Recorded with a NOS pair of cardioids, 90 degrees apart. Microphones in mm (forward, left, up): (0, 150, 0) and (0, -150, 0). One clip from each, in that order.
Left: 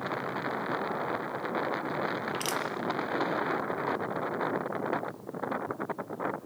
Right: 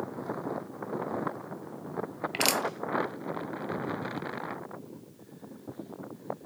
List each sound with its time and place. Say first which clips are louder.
2.3 s crushing: right 4 dB; 65° right, 2.5 m